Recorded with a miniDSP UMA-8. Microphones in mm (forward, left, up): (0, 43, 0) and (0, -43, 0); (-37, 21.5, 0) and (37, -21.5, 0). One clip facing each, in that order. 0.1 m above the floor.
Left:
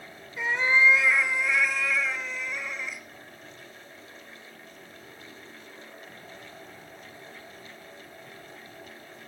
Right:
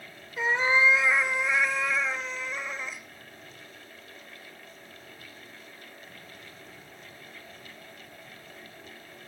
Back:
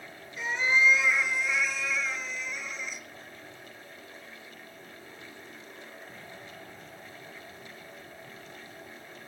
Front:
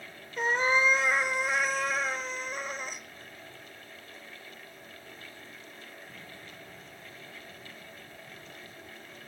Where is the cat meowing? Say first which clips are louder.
Even, front 1 dB; 30° right, 0.7 m.